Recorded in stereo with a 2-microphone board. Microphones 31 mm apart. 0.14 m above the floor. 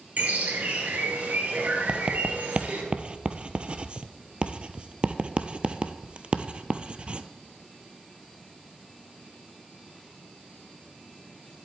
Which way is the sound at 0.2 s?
60° right (ahead or behind).